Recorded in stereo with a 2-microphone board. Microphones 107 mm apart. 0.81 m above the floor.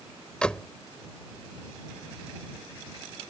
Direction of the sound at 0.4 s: 10° left (ahead or behind).